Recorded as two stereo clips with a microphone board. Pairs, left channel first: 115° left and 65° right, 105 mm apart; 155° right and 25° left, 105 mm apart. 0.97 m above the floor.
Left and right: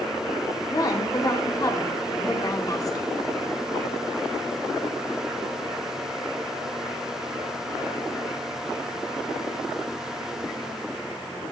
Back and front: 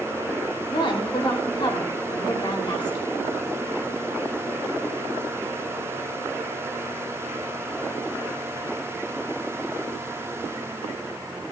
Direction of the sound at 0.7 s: 165° left.